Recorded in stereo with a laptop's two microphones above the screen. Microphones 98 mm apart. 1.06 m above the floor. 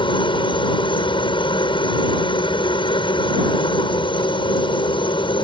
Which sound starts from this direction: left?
A helicopter, at 0.0 s.